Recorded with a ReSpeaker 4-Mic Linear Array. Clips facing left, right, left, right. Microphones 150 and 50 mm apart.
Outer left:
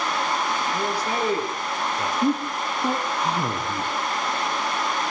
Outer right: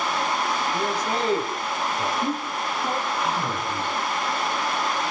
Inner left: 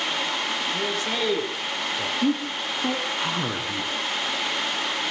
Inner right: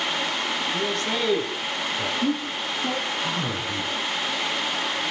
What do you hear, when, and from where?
0.7 s a man speaking: 10° left (ahead or behind), 9.5 m; by 2.1 s 15° left (ahead or behind), 9.5 m
2.2 s a man speaking: 35° left (ahead or behind), 3.5 m